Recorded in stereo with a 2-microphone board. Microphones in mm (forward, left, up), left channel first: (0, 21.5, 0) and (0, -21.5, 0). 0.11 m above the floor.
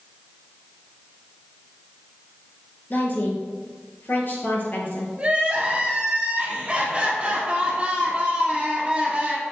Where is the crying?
25° right (ahead or behind), 2 m.